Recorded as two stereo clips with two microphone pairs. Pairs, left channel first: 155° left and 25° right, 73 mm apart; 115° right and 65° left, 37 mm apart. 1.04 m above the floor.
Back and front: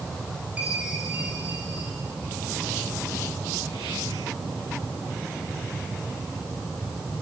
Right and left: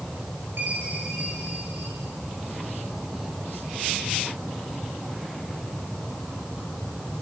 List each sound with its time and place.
0.6 s a chime: 50° left, 8.5 m